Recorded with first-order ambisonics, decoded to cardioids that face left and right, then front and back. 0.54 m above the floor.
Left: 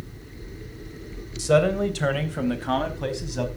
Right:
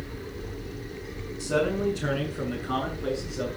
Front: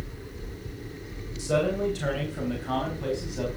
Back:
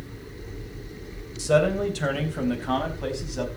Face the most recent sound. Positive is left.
turn(degrees=110)